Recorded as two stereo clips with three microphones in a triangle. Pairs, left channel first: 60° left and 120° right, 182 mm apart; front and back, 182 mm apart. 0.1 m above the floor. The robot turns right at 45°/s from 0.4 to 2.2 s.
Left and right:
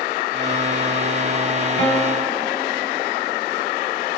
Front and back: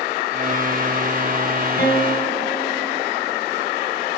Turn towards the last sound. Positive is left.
turn(degrees=5)